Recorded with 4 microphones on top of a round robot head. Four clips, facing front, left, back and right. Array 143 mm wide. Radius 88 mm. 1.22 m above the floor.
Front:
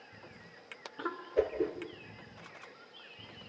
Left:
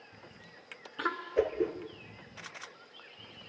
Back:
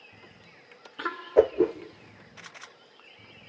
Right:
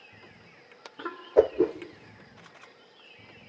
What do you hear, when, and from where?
1.4 s a whoosh: 140° right, 1.2 m